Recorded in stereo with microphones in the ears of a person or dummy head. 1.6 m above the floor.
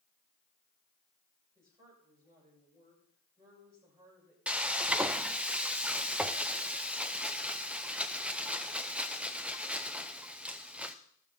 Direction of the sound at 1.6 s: 15° right (ahead or behind).